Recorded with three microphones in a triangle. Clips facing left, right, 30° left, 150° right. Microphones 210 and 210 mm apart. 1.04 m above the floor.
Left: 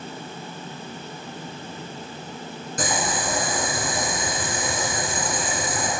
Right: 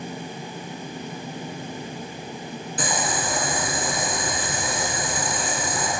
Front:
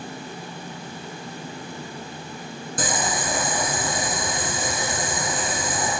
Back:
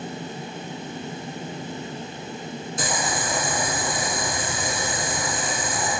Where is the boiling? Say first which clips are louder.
Left 1 dB, front 2 dB; 55° left, 1.7 m.